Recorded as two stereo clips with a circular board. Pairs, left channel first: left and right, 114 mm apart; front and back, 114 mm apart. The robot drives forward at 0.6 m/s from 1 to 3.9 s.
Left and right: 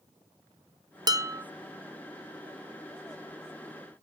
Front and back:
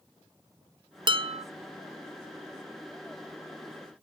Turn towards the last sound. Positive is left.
turn(degrees=-170)